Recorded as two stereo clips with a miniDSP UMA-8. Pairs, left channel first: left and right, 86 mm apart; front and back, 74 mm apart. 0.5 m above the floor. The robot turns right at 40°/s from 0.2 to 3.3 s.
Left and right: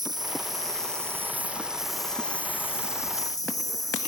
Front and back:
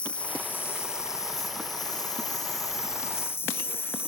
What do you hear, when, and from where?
0.0 s an insect: 70° right; by 4.1 s 55° left